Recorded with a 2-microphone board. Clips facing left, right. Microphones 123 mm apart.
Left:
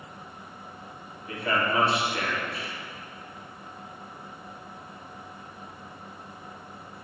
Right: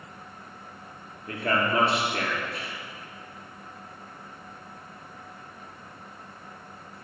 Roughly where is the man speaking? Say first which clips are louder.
Right 1 dB; right.